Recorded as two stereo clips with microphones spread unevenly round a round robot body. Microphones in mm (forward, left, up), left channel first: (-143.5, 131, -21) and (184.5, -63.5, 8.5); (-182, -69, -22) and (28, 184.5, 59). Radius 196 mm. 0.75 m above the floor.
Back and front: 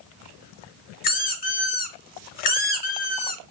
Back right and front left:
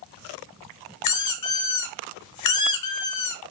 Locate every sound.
1.0 s a squeak: 150° right, 0.6 m